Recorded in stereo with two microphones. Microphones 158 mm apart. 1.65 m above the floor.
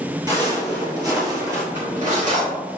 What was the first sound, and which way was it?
Footsteps, 25° right (ahead or behind).